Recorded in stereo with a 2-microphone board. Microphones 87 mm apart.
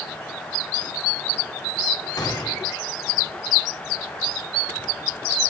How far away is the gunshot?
About 1.6 m.